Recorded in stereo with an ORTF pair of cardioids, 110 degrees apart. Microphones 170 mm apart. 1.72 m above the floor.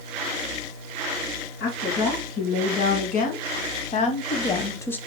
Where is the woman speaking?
60° left, 2.5 m; by 5.0 s 10° left, 0.7 m.